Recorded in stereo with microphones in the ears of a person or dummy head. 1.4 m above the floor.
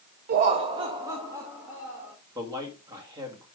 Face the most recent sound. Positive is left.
turn(degrees=-15)  # may be behind; listen again after turning